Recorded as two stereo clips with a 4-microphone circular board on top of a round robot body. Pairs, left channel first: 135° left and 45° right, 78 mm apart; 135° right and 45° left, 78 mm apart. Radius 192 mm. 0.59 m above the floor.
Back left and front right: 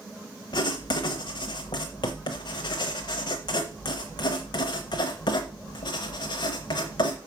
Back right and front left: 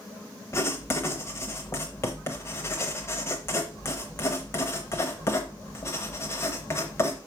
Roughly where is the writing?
Behind.